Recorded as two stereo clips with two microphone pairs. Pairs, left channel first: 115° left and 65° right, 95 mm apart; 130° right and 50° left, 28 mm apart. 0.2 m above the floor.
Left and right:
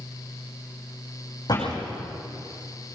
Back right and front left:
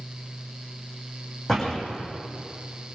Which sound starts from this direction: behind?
A door slam, at 1.5 s.